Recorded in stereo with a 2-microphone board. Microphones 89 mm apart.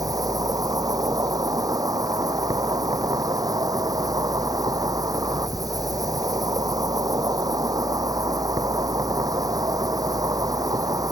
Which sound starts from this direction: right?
An insect, at 0.0 s.